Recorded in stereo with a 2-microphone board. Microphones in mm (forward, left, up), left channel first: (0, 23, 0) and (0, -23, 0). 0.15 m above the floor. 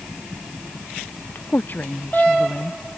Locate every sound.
1.4 s a woman speaking: 45° left (ahead or behind)